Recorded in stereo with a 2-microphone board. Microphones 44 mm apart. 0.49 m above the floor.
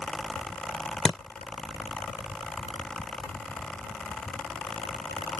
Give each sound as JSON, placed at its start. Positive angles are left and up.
{"t": 1.1, "sound": "a thud", "side_deg": 10}